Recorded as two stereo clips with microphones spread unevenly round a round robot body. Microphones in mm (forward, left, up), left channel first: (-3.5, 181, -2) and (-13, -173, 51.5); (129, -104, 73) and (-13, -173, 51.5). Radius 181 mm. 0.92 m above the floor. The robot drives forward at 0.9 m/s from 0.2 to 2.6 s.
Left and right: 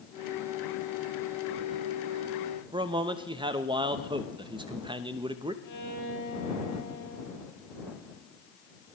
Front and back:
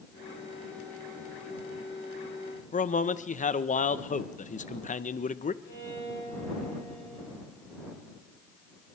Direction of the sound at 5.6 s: 55° left.